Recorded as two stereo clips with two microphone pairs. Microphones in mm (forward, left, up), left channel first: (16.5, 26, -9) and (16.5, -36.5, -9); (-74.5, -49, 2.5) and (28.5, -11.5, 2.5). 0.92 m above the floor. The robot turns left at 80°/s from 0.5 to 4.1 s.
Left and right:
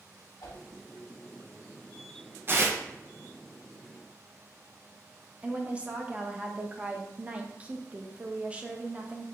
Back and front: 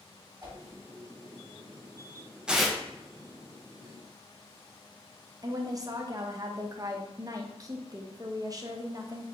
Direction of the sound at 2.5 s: 60° right.